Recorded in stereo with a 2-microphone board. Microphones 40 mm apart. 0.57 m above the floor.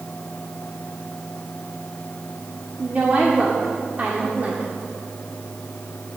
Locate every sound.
2.8 s a woman speaking: 35° right (ahead or behind), 1.5 m